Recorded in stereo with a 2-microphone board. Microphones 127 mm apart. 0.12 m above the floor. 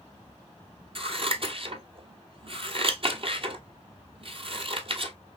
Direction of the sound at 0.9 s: 50° right (ahead or behind).